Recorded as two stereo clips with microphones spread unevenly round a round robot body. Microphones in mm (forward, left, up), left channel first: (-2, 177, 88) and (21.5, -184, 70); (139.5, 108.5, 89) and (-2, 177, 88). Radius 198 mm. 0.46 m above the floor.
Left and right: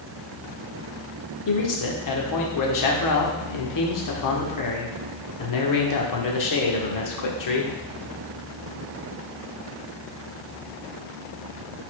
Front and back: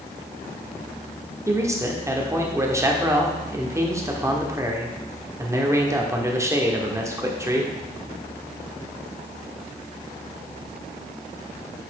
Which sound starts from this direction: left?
A man speaking, at 1.5 s.